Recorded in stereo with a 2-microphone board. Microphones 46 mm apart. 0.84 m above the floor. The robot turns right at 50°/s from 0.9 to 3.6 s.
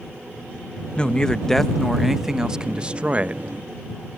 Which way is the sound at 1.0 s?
20° left (ahead or behind).